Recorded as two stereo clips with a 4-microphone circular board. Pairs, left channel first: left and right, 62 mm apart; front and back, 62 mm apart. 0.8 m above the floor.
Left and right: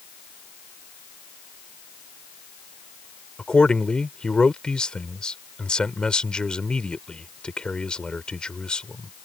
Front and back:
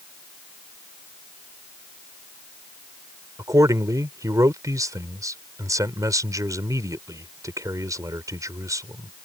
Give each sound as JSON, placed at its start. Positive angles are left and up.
{"t": 3.4, "sound": "a man speaking", "azimuth_deg": 165}